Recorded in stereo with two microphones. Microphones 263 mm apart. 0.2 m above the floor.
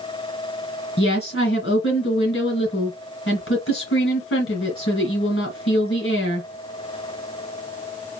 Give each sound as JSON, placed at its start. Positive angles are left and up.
{"t": 1.0, "sound": "a woman speaking", "side_deg": 55, "distance_m": 3.5}